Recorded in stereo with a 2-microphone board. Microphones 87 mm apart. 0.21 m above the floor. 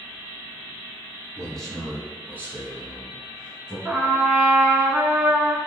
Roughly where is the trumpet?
Centre.